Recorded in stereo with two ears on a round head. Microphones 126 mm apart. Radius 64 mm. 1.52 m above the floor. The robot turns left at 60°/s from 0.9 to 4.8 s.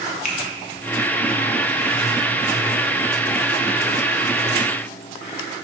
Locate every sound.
0.2 s a finger snap: 55° left (ahead or behind), 0.7 m